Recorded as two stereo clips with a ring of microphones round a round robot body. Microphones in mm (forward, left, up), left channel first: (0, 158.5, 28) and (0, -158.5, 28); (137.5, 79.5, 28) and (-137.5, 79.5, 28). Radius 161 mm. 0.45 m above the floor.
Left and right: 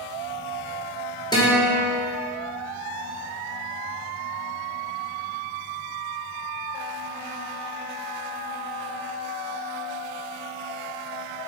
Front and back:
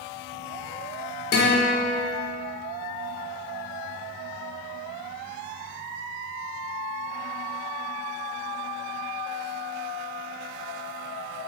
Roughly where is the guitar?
Ahead.